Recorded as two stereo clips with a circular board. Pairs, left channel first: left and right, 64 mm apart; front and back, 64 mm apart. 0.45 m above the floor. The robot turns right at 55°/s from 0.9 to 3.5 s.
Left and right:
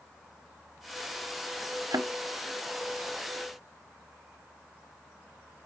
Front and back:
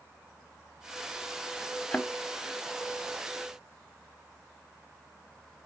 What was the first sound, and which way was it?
A thud, 80° right.